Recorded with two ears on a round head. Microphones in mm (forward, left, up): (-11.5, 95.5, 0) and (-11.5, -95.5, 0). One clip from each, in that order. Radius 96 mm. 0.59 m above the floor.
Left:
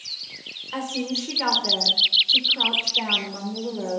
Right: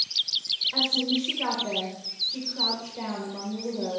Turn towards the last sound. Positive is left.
turn(degrees=45)  # may be behind; listen again after turning